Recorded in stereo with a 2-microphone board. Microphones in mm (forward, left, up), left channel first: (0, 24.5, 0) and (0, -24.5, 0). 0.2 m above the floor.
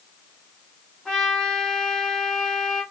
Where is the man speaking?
No man speaking in this recording.